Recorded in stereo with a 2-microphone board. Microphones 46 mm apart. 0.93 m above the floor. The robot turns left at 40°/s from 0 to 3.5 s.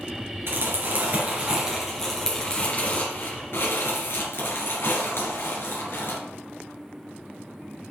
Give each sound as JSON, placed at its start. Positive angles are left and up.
{"t": 0.5, "sound": "crumpling", "side_deg": -60, "distance_m": 3.5}